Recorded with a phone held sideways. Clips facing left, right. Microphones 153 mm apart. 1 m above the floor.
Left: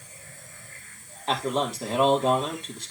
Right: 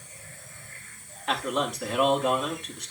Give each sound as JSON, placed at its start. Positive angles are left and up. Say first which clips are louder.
{"t": 1.3, "sound": "a man speaking", "louder": "left 2 dB", "side_deg": 30, "distance_m": 3.0}